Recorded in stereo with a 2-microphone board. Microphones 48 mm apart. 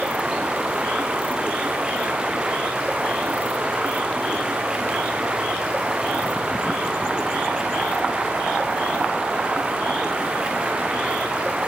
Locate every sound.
0.0 s running water: 20° right (ahead or behind), 3.5 m